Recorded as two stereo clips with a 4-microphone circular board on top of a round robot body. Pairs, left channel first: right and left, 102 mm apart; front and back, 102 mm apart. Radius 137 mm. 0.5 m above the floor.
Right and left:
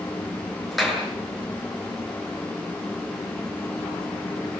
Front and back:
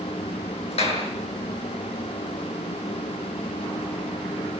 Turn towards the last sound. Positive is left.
turn(degrees=0)